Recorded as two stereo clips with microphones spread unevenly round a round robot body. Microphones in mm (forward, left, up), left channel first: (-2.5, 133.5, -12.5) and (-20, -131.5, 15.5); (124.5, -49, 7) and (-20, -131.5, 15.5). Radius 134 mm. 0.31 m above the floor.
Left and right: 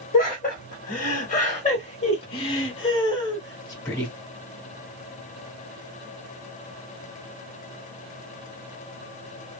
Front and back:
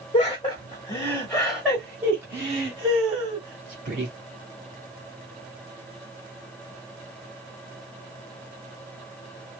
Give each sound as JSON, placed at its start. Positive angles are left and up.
{"t": 0.1, "sound": "laughter", "azimuth_deg": 65, "distance_m": 1.5}